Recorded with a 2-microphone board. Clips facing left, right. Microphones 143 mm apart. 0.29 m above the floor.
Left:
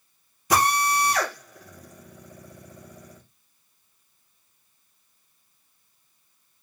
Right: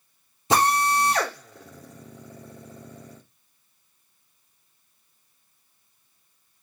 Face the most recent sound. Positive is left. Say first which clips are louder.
# right 1 dB
turn(degrees=-25)  # may be behind; listen again after turning